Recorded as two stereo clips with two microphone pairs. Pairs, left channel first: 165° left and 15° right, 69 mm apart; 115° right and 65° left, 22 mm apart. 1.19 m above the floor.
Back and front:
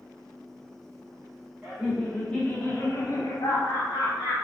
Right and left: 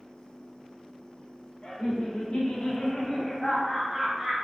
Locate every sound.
1.6 s laughter: 90° right, 0.8 m; by 4.3 s 155° left, 1.1 m